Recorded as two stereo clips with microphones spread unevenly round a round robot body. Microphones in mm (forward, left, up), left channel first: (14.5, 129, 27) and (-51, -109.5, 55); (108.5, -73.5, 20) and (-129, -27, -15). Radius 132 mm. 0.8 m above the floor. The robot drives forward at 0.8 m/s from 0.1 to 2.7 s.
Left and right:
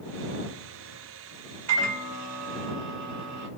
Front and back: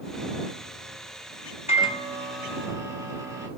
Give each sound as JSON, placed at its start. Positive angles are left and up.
{"t": 1.7, "sound": "a microwave", "azimuth_deg": -80, "distance_m": 1.3}